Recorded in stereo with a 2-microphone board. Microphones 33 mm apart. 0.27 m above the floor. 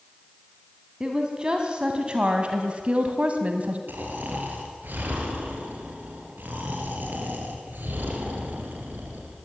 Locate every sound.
1.0 s a woman speaking: 25° right (ahead or behind), 2.5 m; by 3.8 s 45° right (ahead or behind), 2.5 m
3.9 s snoring: 75° right (ahead or behind), 5.5 m